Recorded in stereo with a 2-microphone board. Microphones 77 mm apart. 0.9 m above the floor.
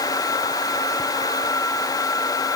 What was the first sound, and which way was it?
Only background noise.